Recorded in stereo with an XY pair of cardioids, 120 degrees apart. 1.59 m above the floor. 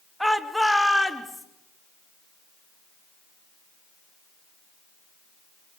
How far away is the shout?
About 2.5 m.